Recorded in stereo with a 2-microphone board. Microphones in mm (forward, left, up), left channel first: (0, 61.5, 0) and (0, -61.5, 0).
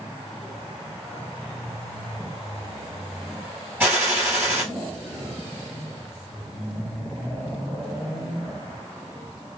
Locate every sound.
3.8 s a gunshot: 15° right (ahead or behind), 2.5 m